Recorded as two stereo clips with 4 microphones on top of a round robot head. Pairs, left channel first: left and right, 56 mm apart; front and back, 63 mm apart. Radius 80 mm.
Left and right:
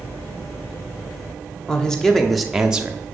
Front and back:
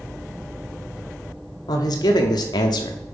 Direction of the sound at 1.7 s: 10° left.